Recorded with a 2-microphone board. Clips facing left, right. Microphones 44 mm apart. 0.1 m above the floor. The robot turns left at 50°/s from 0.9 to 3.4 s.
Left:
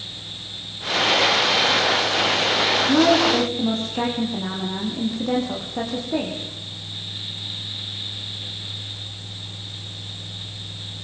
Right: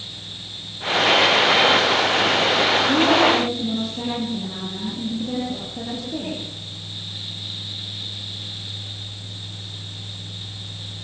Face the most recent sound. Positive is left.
turn(degrees=60)  # may be behind; listen again after turning